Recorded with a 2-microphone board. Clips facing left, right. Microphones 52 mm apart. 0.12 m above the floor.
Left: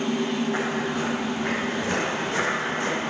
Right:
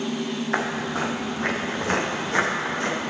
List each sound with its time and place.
0.5 s footsteps: 75° right (ahead or behind), 2.5 m; by 3.0 s 45° right (ahead or behind), 4.5 m